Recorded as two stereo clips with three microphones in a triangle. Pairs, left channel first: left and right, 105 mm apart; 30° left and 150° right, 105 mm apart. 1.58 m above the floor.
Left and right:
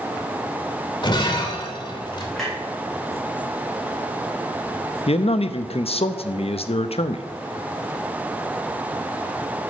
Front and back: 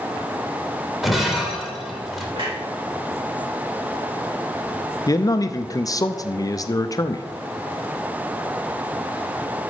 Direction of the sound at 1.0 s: 120° left.